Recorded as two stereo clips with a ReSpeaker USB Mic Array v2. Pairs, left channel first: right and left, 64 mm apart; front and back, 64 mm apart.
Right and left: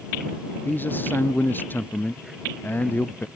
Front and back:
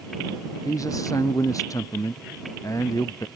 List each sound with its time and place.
0.7 s a man speaking: 30° right